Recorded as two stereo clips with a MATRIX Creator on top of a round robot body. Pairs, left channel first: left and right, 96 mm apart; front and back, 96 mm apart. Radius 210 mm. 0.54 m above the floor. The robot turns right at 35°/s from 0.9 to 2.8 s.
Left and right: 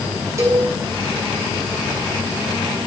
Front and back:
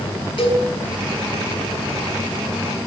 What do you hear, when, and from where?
0.4 s a cowbell: 30° right, 8 m